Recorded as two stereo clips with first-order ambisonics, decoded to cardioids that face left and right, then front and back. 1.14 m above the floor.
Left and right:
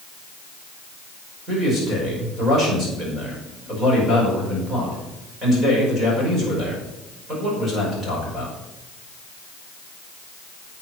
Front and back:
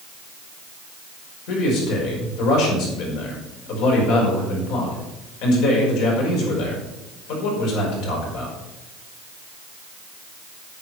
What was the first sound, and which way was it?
A man speaking, 20° right.